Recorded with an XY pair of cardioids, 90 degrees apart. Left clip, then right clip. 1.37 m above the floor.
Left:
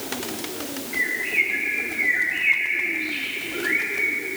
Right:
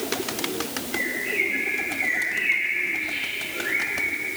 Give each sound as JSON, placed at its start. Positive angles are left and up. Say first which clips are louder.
{"t": 0.9, "sound": "a bird", "louder": "left 3 dB", "azimuth_deg": 65, "distance_m": 2.0}